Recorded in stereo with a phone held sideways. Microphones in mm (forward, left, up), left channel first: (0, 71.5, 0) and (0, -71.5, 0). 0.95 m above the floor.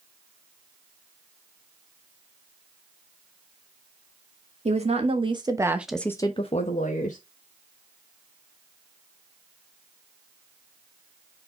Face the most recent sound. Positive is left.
turn(degrees=70)  # may be behind; listen again after turning